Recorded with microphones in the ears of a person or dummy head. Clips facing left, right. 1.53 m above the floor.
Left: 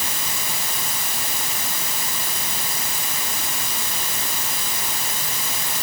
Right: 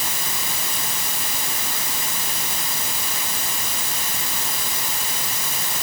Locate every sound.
Only background noise.